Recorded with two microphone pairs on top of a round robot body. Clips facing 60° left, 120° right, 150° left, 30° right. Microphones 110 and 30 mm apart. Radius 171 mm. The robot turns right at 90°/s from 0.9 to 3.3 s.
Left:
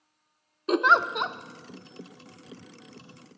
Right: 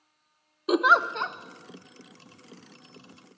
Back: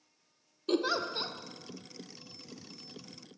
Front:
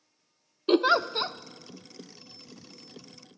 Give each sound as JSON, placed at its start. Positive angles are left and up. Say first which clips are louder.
{"t": 0.7, "sound": "a giggle", "louder": "even, front 8 dB", "azimuth_deg": -40, "distance_m": 0.7}